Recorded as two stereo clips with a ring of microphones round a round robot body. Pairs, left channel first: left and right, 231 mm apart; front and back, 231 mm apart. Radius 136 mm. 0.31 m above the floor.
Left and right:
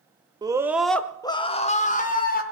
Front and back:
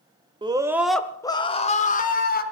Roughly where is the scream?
Behind right.